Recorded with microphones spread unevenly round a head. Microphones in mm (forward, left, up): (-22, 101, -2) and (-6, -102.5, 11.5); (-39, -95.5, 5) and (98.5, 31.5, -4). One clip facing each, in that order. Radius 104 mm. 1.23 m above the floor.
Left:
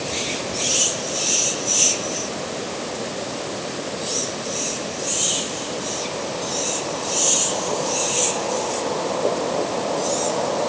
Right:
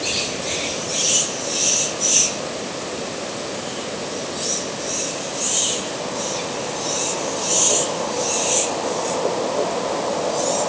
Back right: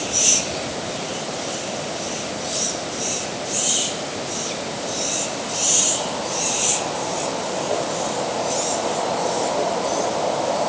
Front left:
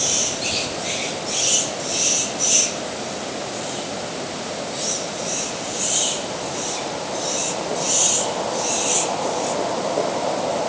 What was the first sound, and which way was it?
Only background noise.